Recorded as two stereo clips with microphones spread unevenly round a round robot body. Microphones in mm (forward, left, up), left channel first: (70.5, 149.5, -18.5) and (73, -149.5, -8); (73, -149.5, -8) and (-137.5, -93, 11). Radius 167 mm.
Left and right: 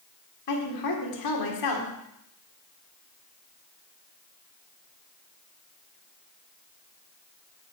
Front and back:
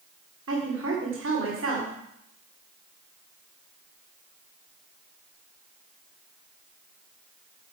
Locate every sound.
0.5 s a woman speaking: 115° left, 1.9 m